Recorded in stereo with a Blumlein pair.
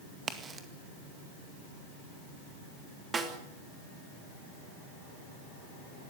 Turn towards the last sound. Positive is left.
turn(degrees=-20)